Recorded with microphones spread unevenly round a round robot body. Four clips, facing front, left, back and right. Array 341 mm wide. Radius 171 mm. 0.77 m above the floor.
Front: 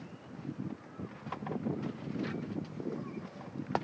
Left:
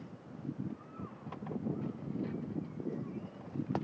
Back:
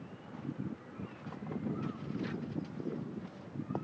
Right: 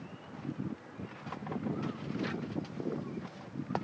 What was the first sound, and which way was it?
Only background noise.